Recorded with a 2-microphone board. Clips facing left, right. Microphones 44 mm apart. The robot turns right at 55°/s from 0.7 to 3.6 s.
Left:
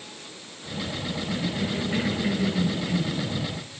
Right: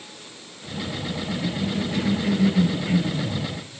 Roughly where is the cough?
Behind left.